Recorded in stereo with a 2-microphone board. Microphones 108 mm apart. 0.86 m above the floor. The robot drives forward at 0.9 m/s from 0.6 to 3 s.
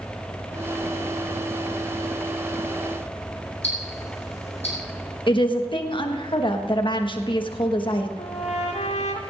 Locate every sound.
3.6 s ticking: 70° left (ahead or behind), 4.5 m
5.3 s a woman speaking: 45° left (ahead or behind), 1.3 m
8.2 s a trumpet: 75° left (ahead or behind), 1.8 m